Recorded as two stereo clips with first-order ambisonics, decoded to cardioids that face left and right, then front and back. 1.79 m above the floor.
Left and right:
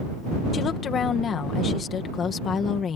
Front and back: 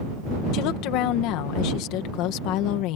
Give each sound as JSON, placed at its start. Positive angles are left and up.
{"t": 0.5, "sound": "a woman speaking", "azimuth_deg": 25}